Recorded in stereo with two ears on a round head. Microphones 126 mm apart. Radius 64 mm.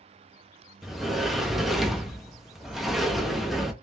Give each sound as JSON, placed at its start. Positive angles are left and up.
{"t": 0.8, "sound": "a sliding door", "side_deg": 0, "distance_m": 0.5}